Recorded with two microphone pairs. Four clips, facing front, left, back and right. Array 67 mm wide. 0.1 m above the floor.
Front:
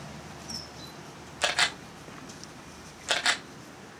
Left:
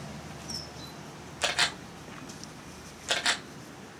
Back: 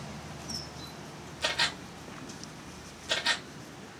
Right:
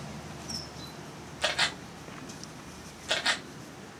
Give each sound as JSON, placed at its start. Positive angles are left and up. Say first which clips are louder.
{"t": 1.4, "sound": "a camera shutter", "louder": "even, front 4 dB", "azimuth_deg": 20, "distance_m": 2.5}